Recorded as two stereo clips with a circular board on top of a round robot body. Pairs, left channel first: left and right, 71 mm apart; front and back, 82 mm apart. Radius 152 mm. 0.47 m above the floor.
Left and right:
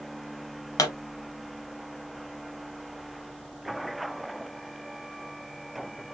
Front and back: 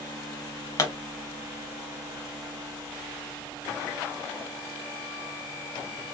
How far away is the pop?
About 1.0 m.